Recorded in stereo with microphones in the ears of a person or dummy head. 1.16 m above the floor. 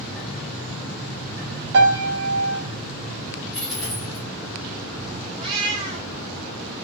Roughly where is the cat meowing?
Right.